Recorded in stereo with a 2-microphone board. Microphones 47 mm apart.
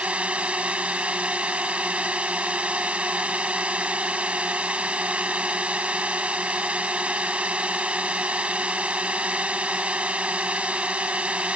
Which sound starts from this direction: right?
A drone, at 0.0 s.